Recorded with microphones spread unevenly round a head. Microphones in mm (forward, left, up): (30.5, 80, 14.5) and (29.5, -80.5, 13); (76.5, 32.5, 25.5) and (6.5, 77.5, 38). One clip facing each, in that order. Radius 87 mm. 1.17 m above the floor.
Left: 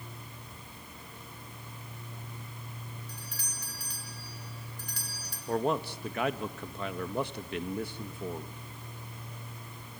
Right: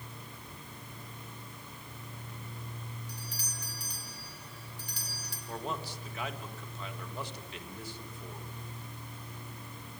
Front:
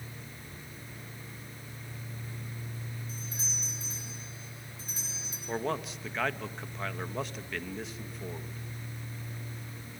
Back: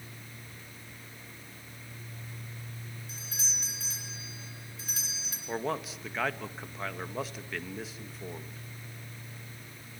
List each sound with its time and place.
3.1 s a doorbell: 140° left, 5 m
5.5 s a man speaking: 55° left, 2 m